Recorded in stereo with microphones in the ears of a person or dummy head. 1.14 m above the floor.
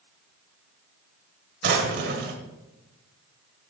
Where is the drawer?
60° right (ahead or behind), 1.9 m.